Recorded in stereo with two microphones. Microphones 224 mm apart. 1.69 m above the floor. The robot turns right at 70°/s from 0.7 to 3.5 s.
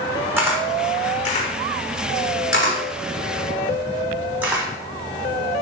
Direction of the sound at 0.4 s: 10° right (ahead or behind).